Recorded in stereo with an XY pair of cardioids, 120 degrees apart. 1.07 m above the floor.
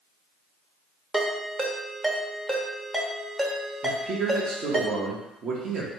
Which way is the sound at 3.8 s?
50° right.